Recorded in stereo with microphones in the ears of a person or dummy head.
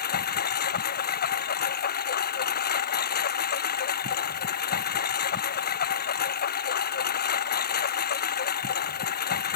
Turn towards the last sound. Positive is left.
turn(degrees=55)  # may be behind; listen again after turning